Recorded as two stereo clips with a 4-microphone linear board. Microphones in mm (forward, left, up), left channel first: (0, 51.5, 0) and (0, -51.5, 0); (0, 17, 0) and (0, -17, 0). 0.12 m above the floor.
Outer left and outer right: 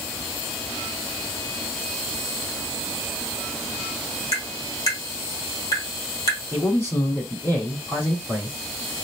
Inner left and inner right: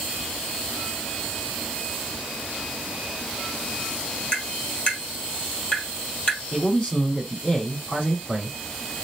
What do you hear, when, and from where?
4.3 s tapping: 30° left (ahead or behind), 2.5 m
6.5 s a man speaking: 20° left (ahead or behind), 4 m